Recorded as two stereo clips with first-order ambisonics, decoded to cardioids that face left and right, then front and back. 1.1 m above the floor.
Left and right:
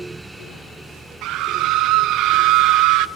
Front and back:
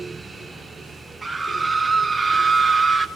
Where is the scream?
100° right, 1.0 m.